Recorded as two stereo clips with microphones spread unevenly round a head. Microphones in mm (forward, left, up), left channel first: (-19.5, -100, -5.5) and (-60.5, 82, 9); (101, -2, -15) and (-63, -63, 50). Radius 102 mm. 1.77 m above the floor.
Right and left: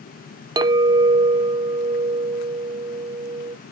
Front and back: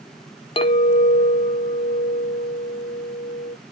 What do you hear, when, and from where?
0.6 s a clink: 100° left, 0.7 m